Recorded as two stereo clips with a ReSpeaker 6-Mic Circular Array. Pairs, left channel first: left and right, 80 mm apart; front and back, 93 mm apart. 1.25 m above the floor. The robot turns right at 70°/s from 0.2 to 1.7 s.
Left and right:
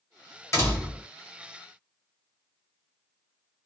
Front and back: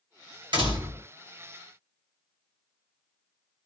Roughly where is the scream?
No scream in this recording.